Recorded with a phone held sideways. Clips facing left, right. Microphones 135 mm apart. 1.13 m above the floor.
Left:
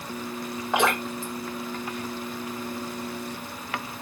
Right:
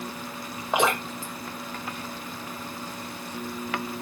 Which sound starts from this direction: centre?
Dripping, at 0.7 s.